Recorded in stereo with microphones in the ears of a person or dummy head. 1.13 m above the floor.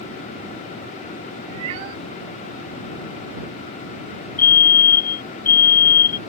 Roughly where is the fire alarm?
Left.